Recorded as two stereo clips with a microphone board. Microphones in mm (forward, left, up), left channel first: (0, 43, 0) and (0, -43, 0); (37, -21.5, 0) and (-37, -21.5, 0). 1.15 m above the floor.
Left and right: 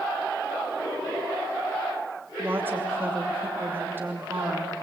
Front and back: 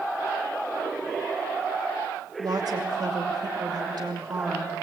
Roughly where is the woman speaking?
Behind right.